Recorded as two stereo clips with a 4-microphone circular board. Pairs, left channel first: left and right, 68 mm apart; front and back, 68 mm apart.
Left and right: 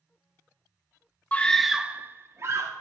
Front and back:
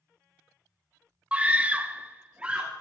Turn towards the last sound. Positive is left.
turn(degrees=-110)